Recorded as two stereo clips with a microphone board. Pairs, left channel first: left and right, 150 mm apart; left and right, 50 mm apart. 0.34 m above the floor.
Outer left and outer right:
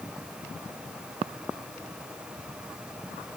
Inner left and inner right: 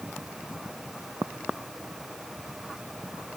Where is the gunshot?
I don't hear a gunshot.